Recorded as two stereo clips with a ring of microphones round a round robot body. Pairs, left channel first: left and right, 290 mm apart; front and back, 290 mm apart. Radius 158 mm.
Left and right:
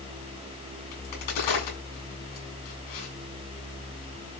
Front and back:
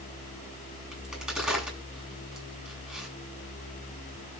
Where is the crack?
90° left, 9.5 m.